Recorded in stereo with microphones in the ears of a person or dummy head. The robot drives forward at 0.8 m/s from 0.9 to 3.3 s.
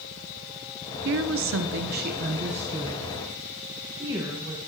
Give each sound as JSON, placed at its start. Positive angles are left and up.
{"t": 1.1, "sound": "a woman speaking", "side_deg": -60, "distance_m": 0.8}